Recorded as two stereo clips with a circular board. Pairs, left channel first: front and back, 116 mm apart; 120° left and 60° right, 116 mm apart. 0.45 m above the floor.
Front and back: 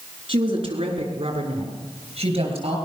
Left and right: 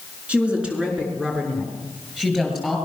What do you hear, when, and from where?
0.3 s a woman speaking: 140° right, 6 m; by 2.8 s 150° right, 8.5 m